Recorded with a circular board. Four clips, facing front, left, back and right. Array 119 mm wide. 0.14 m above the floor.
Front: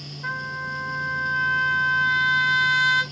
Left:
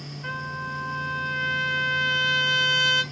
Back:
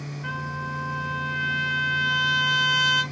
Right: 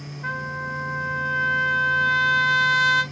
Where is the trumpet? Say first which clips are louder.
Right 3 dB, front 2 dB; 50° right, 1.2 m.